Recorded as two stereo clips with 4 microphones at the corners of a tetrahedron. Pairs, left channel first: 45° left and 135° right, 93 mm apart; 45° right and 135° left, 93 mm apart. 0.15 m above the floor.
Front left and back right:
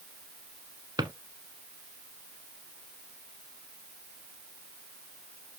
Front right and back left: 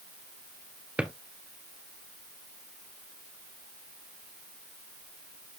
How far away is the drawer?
About 0.8 m.